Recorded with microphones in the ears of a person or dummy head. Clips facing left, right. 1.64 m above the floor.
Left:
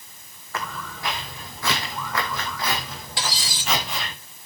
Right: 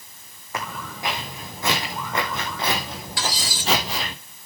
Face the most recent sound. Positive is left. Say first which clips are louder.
# right 2 dB
turn(degrees=30)  # may be behind; listen again after turning